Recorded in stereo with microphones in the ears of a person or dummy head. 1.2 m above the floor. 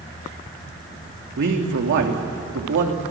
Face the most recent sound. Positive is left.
turn(degrees=-65)  # may be behind; listen again after turning